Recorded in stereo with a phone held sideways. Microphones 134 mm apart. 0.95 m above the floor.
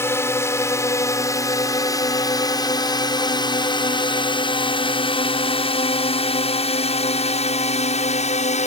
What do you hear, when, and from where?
0.0 s a drone: 20° left (ahead or behind); by 8.7 s 55° left (ahead or behind)